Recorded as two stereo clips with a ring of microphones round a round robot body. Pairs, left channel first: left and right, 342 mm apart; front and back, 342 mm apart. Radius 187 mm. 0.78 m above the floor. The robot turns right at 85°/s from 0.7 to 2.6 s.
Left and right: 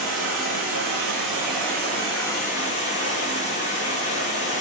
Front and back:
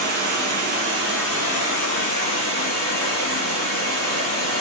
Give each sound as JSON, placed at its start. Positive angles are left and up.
{"t": 0.0, "sound": "running water", "azimuth_deg": -125, "distance_m": 3.5}